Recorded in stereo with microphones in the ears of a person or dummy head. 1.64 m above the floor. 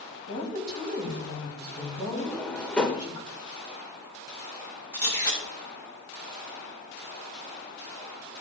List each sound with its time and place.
0.3 s a woman speaking: 25° left (ahead or behind), 4 m
2.2 s a drawer: 10° left (ahead or behind), 0.9 m
4.9 s a camera shutter: 15° left (ahead or behind), 3.5 m